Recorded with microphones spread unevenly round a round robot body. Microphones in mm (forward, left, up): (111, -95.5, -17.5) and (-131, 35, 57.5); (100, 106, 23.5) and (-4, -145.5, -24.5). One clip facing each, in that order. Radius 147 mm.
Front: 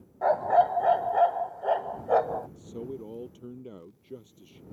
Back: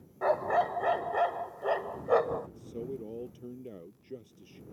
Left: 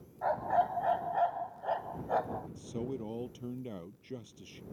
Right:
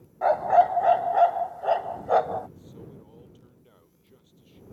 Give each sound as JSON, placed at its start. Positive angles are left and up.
{"t": 0.2, "sound": "a dog barking", "azimuth_deg": -135}
{"t": 2.5, "sound": "a man speaking", "azimuth_deg": 55}